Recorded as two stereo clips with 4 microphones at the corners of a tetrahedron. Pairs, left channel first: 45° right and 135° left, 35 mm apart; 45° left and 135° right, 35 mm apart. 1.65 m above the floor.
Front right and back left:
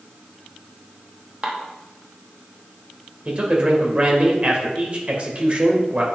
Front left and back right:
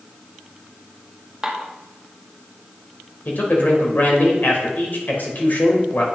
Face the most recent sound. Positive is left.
turn(degrees=75)